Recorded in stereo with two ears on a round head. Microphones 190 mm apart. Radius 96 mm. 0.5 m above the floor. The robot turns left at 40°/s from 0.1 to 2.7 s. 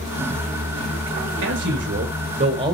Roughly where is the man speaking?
Right.